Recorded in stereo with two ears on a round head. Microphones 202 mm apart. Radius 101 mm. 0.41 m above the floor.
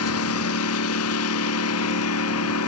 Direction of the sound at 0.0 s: 75° left (ahead or behind).